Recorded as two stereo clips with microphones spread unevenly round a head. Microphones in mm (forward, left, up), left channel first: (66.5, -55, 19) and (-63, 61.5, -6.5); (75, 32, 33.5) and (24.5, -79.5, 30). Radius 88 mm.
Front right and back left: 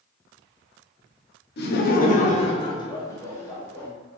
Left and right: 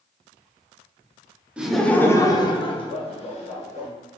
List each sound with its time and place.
1.6 s laughter: 40° right, 0.6 m; by 3.9 s 40° left, 1.2 m